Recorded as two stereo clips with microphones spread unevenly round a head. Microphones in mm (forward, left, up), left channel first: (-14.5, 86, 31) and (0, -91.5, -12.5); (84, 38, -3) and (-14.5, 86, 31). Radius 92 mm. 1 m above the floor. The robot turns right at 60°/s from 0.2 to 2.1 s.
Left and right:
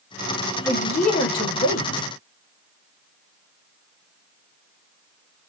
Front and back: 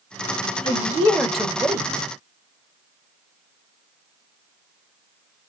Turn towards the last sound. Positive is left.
turn(degrees=105)